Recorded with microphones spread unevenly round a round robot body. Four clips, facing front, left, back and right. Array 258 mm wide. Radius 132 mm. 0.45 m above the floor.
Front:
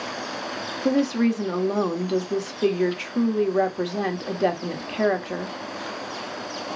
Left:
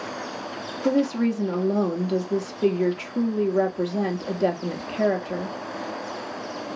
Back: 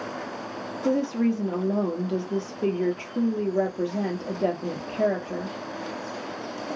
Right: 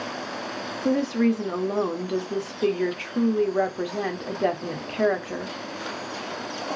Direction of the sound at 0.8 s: 15° left.